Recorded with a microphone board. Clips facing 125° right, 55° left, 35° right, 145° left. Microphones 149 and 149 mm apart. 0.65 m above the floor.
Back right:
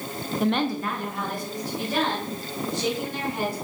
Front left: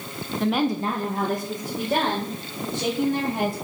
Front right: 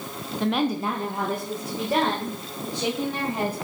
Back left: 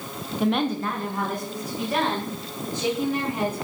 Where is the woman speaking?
165° right, 0.7 m; by 3.5 s 20° left, 4.5 m.